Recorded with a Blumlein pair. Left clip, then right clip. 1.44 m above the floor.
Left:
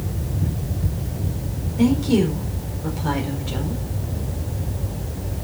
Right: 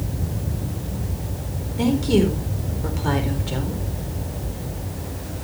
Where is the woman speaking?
10° right, 4 m.